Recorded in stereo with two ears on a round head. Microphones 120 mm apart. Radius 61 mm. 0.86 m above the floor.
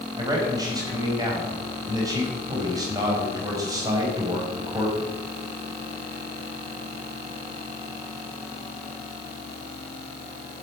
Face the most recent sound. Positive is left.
turn(degrees=-30)  # may be behind; listen again after turning